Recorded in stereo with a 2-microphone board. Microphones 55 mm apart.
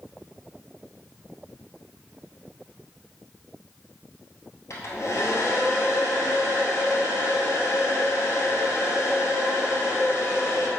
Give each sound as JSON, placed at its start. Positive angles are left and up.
{"t": 4.7, "sound": "a hair dryer", "side_deg": 60, "distance_m": 1.6}